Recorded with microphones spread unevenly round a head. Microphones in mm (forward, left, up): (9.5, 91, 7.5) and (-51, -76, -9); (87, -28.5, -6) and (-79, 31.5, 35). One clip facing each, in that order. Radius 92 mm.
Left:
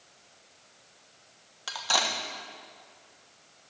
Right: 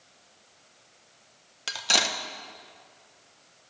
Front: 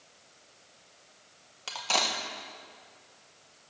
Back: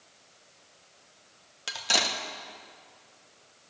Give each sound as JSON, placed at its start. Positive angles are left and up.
{"t": 1.7, "sound": "cutlery clinking", "azimuth_deg": -160, "distance_m": 0.9}